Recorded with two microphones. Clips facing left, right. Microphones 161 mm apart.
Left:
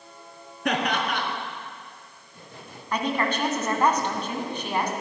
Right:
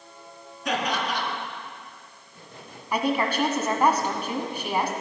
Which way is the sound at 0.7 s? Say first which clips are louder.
Left 2 dB; 60° left (ahead or behind).